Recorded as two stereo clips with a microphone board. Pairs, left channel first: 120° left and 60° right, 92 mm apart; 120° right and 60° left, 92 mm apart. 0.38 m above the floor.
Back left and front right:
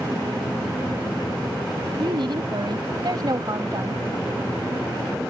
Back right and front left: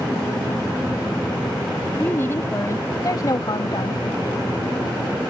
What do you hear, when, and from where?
2.0 s a woman speaking: 55° right; by 4.0 s 105° right